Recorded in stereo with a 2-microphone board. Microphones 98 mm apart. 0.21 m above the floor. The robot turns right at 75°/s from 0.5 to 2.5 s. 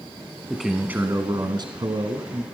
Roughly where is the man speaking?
Behind.